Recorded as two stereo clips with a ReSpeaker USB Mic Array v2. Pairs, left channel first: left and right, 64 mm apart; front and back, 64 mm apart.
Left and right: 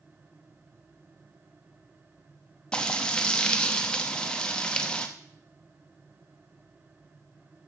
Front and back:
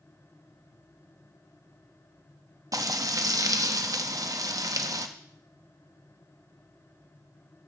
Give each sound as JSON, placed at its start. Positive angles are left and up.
{"t": 2.7, "sound": "frying", "azimuth_deg": 165, "distance_m": 0.8}